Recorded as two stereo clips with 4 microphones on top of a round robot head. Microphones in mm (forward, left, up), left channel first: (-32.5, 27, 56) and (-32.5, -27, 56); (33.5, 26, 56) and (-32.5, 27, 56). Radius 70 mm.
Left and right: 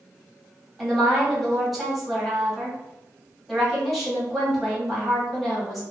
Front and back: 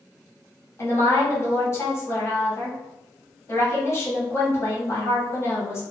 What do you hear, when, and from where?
0.8 s a woman speaking: straight ahead, 1.1 m